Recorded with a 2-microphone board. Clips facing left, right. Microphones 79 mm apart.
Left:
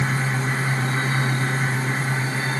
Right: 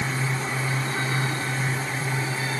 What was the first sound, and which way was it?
Only background noise.